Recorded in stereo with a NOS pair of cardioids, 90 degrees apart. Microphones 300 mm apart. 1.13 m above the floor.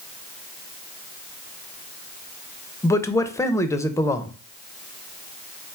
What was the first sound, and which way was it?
A man speaking, 10° left.